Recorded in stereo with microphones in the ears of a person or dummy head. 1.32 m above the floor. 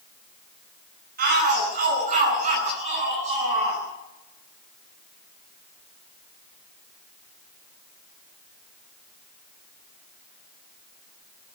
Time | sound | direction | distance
1.2 | a shout | 50° right (ahead or behind) | 10 m